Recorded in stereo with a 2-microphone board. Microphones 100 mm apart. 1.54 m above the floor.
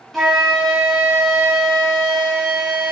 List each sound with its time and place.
0.1 s a flute: centre (ahead or behind), 0.7 m